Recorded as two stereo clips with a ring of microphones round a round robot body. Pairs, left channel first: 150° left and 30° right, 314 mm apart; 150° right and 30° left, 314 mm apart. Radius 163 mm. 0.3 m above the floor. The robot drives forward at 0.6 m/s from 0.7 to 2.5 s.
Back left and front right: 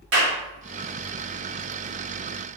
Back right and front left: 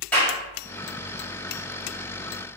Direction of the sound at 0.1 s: 65° right.